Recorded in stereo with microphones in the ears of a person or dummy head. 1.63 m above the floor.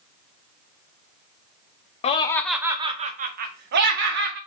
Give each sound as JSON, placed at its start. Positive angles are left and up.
{"t": 2.0, "sound": "laughter", "side_deg": 35, "distance_m": 0.5}